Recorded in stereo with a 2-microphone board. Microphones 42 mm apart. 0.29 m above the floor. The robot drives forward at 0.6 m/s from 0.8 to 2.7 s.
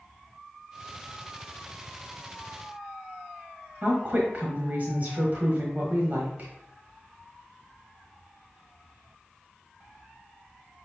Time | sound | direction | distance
3.8 | a woman speaking | 40° right (ahead or behind) | 1.3 m